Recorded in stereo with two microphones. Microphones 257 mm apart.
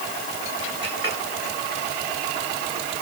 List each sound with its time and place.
0.8 s a clink: 45° right (ahead or behind), 8.5 m